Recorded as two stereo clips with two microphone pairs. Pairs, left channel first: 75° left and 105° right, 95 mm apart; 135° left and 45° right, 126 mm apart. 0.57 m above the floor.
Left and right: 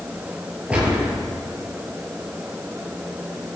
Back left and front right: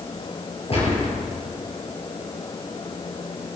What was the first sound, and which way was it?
A gunshot, 175° left.